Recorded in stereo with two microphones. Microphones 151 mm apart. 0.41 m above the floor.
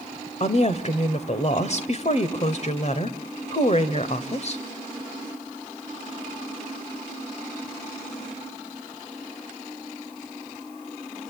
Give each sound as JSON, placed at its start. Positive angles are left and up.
{"t": 0.4, "sound": "a woman speaking", "side_deg": 50, "distance_m": 1.8}